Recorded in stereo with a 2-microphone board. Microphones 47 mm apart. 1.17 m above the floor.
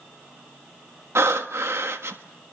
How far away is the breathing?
About 1.3 m.